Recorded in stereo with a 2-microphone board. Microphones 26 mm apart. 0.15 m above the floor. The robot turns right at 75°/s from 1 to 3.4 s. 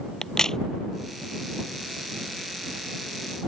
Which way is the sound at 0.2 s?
20° left (ahead or behind).